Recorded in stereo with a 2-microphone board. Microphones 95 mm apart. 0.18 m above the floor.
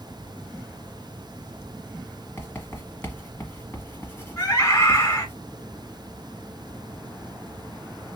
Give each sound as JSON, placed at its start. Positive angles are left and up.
{"t": 2.4, "sound": "writing", "side_deg": 25, "distance_m": 1.3}
{"t": 4.4, "sound": "a scream", "side_deg": 25, "distance_m": 1.7}